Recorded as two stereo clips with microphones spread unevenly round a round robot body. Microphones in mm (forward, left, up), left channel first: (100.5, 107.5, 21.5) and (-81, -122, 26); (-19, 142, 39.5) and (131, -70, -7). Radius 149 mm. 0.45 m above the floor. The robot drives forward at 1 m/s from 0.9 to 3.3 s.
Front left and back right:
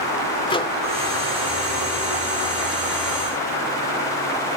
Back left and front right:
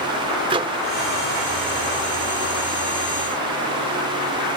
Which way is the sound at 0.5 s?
10° right.